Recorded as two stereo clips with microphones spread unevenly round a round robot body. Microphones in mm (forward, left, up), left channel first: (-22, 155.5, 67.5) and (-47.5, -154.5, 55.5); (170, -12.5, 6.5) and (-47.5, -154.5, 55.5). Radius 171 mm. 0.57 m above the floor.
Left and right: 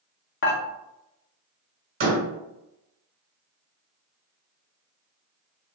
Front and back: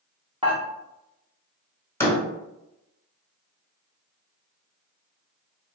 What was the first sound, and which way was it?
Dishes clattering, 135° left.